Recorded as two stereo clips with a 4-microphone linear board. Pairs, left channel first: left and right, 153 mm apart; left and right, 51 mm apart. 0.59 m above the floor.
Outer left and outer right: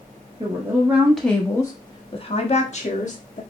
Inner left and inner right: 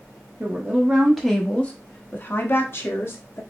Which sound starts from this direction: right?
A woman speaking, at 0.4 s.